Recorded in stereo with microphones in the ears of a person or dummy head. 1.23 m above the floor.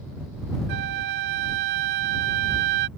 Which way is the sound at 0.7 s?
60° right (ahead or behind).